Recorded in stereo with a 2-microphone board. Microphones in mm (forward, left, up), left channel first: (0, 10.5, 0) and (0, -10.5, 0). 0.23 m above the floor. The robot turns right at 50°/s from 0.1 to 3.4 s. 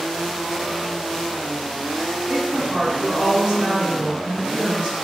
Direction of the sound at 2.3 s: 100° right.